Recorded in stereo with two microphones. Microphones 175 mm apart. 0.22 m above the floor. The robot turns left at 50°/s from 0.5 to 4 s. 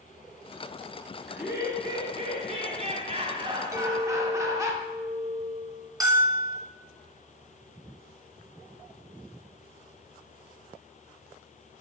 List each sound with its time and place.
1.3 s laughter: 10° right, 1.3 m; by 4.7 s 150° right, 1.3 m
3.7 s a clink: 20° right (ahead or behind), 0.6 m; by 5.9 s 15° right (ahead or behind), 0.6 m
6.0 s a bell: 25° right (ahead or behind), 1.9 m